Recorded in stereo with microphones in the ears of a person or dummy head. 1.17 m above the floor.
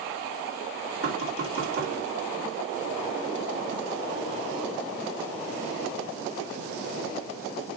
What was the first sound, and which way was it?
Knocking, 85° right.